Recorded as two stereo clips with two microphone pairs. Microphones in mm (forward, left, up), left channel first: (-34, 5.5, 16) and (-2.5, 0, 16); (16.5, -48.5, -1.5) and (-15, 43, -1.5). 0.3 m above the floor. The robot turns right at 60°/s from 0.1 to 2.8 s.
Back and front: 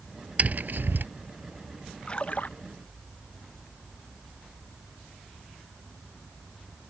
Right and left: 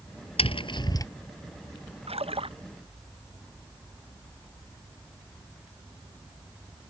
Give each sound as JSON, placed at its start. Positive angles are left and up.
{"t": 0.4, "sound": "tapping", "azimuth_deg": -55}
{"t": 2.1, "sound": "a splash", "azimuth_deg": 105}